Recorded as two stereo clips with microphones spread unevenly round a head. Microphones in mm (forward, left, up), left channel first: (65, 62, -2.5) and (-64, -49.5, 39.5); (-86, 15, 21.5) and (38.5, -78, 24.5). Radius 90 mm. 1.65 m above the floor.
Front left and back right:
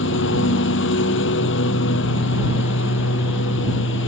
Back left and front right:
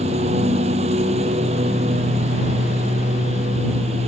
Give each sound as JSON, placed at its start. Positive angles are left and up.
{"t": 0.0, "sound": "a lawn mower", "azimuth_deg": 20}